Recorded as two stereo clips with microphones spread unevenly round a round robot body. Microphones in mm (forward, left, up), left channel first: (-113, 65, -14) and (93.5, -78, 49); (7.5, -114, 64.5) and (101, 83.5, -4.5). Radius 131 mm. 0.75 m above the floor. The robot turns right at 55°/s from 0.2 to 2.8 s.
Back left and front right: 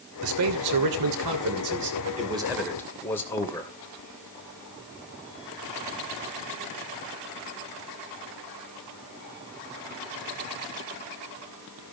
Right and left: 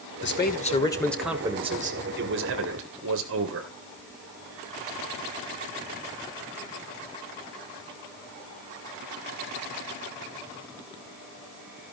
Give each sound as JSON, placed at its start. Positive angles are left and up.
{"t": 0.2, "sound": "a man speaking", "azimuth_deg": -75, "distance_m": 3.0}